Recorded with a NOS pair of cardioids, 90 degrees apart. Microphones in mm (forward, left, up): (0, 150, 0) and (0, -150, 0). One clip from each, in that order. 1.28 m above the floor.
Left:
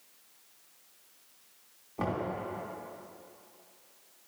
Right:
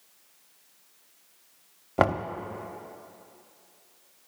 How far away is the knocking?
About 0.6 m.